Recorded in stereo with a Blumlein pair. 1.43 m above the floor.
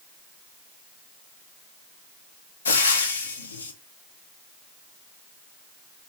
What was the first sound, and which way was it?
Frying, 70° left.